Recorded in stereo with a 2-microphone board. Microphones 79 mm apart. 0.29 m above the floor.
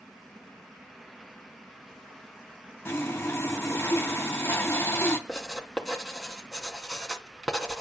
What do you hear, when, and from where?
2.9 s sawing: 30° left (ahead or behind), 2.5 m
5.3 s writing: centre (ahead or behind), 2.5 m